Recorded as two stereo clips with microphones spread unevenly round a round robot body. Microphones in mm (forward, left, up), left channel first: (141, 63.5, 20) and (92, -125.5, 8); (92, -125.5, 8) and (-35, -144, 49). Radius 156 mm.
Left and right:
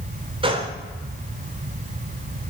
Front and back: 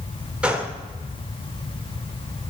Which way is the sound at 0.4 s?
70° right.